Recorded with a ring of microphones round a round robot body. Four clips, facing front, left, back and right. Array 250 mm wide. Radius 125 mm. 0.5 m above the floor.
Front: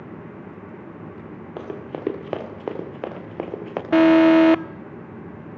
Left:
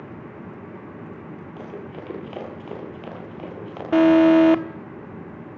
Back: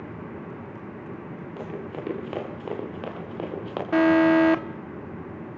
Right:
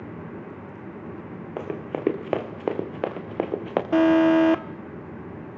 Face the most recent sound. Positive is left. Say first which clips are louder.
# left 4 dB, front 5 dB
turn(degrees=15)